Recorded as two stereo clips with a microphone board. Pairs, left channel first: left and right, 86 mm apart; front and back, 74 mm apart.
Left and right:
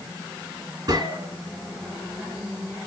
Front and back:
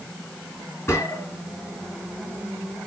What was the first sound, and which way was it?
A gunshot, 55° right.